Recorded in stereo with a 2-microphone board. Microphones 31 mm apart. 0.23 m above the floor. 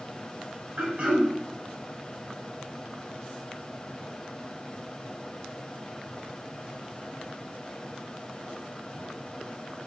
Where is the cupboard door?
No cupboard door in this recording.